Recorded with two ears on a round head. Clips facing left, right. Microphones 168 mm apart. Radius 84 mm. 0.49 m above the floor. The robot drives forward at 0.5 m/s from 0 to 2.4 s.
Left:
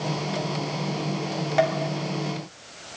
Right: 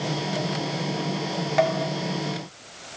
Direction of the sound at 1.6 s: Centre (ahead or behind).